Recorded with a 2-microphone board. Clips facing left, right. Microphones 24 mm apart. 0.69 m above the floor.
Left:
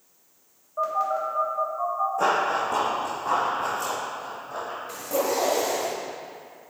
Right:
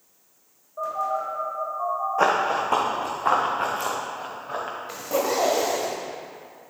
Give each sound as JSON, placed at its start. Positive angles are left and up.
{"t": 0.8, "sound": "a phone buzzing", "side_deg": 40, "distance_m": 3.0}
{"t": 2.2, "sound": "running footsteps", "side_deg": -45, "distance_m": 1.7}
{"t": 4.9, "sound": "a zipper", "side_deg": -25, "distance_m": 1.4}